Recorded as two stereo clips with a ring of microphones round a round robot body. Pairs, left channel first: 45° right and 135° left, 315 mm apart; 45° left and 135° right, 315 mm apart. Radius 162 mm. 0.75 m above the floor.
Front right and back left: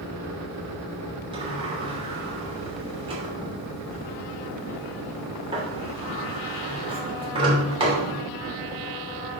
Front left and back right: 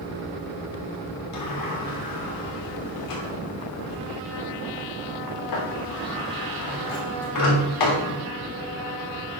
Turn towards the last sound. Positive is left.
turn(degrees=60)